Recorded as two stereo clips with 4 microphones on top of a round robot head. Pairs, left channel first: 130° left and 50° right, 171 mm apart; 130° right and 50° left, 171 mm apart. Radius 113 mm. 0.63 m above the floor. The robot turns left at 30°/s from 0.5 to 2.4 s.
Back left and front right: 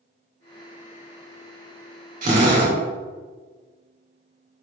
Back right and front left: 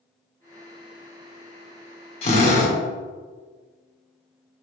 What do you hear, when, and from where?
2.2 s a drill: 85° right, 2.5 m; by 2.8 s 90° right, 2.5 m